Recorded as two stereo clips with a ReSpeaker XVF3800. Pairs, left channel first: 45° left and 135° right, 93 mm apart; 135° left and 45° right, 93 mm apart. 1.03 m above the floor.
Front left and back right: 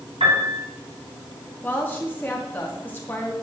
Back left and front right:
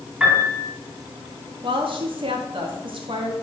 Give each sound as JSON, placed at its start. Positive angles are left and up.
{"t": 0.2, "sound": "a piano", "azimuth_deg": -125, "distance_m": 4.0}
{"t": 1.6, "sound": "a woman speaking", "azimuth_deg": -25, "distance_m": 2.5}